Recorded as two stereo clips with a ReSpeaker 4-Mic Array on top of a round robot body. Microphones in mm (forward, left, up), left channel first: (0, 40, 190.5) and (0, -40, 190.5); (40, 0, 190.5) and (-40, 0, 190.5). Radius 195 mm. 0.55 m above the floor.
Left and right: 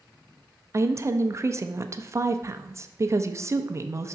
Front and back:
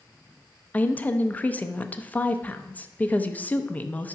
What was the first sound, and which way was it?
A woman speaking, 60° right.